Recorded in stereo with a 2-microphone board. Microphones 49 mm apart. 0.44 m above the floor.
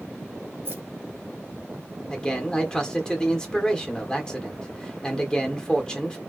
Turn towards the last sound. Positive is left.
turn(degrees=15)  # may be behind; listen again after turning